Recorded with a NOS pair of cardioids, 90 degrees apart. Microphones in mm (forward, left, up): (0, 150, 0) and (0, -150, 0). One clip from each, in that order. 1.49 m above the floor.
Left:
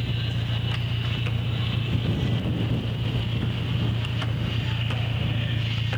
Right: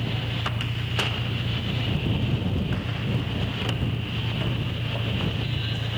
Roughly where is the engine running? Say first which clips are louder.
Right 3 dB; ahead left.